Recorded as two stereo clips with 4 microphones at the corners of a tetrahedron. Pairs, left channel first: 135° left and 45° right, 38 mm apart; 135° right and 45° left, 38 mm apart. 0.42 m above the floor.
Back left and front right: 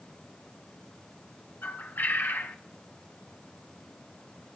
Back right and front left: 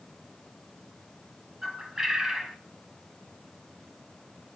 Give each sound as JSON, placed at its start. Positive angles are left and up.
{"t": 1.6, "sound": "a bird", "azimuth_deg": 120, "distance_m": 1.5}